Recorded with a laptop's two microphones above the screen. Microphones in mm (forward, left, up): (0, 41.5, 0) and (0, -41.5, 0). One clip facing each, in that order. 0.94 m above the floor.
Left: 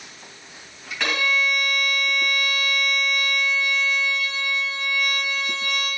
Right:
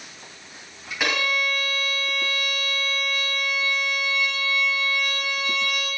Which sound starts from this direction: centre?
A violin, at 1.0 s.